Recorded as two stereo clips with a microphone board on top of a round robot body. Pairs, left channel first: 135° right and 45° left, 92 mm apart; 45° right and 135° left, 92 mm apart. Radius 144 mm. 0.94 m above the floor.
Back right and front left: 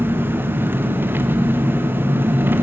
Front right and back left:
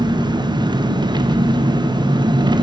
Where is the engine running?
110° left, 0.9 m.